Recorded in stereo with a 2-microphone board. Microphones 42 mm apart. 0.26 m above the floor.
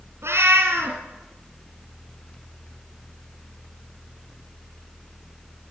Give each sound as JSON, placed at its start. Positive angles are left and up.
{"t": 0.2, "sound": "a cat meowing", "side_deg": -80, "distance_m": 2.5}